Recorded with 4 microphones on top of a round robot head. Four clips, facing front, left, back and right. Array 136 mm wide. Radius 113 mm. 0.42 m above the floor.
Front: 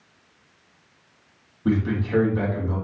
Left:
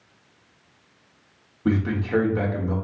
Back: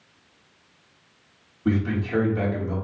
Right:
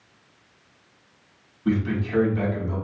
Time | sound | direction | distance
1.6 | a man speaking | 80° left | 1.5 m